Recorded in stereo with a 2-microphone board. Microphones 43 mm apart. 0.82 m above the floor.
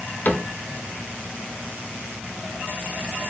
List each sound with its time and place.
0.2 s a cupboard door: 45° left (ahead or behind), 0.6 m